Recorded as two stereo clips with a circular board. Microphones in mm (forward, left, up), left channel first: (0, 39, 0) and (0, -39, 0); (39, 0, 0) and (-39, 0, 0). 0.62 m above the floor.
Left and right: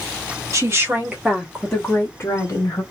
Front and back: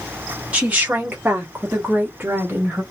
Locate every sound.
0.5 s a woman speaking: 115° right, 1.3 m; by 2.8 s 115° left, 1.5 m